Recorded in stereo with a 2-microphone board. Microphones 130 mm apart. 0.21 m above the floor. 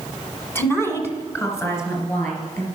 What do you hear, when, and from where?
0.6 s a woman speaking: 20° left (ahead or behind), 1.4 m; by 2.7 s 25° left (ahead or behind), 3.5 m